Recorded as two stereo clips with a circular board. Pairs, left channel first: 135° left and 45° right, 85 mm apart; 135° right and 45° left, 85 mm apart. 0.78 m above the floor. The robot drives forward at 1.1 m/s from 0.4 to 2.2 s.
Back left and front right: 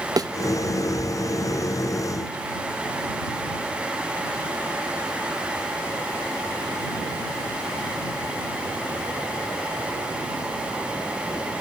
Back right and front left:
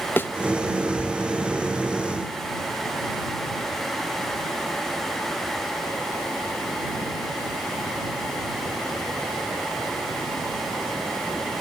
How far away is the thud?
About 0.6 m.